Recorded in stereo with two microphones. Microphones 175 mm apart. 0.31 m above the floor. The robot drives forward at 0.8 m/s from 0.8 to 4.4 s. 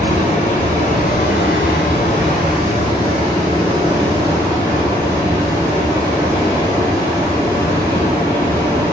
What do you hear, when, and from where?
0.0 s running water: 45° left (ahead or behind), 0.8 m; by 8.9 s 15° left (ahead or behind), 2.5 m